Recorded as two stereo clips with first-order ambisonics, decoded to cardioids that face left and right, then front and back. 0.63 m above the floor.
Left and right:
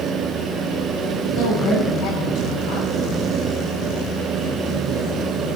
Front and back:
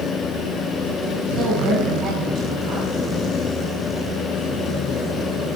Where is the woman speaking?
115° left, 6.5 m.